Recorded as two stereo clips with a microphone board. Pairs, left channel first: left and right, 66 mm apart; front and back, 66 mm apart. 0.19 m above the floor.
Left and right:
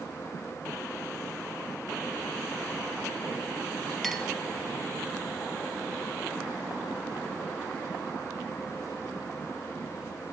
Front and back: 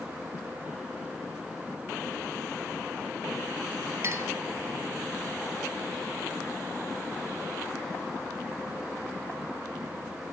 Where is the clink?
175° left, 1.1 m.